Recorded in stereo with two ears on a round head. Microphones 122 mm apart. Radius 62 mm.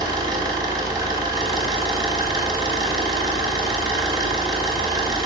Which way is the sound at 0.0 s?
25° right (ahead or behind).